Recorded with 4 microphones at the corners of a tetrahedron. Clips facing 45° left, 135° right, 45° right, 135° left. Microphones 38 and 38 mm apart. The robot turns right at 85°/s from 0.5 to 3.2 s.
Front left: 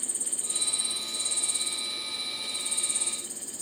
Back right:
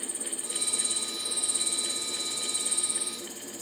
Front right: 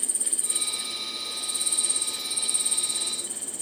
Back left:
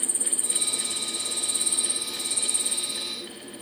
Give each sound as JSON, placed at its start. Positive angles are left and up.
{"t": 0.0, "sound": "an insect", "azimuth_deg": 85}